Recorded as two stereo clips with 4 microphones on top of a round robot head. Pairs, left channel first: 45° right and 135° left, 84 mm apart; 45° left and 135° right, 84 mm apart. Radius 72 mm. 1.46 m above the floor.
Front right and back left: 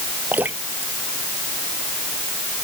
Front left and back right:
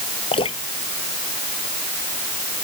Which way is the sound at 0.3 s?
65° left.